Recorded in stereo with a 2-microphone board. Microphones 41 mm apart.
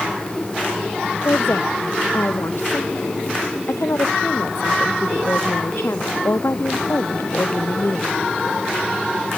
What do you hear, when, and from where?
1.2 s a woman speaking: 75° left (ahead or behind); by 8.1 s 85° left